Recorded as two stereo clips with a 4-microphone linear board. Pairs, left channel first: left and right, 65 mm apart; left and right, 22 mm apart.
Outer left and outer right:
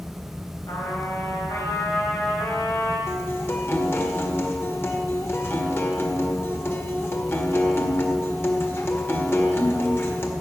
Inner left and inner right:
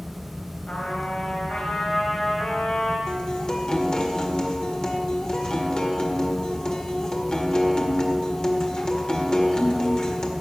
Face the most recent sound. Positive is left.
turn(degrees=40)  # may be behind; listen again after turning